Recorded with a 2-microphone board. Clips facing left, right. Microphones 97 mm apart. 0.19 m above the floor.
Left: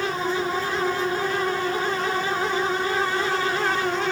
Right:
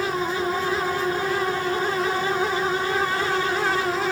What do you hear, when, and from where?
Only background noise.